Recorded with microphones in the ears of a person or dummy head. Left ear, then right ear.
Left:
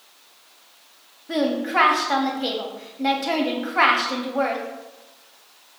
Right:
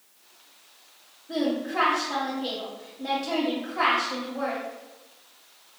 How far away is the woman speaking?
About 0.6 m.